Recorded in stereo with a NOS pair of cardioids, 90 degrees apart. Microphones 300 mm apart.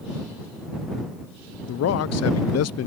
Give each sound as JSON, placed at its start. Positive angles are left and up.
{"t": 1.7, "sound": "a man speaking", "azimuth_deg": 60}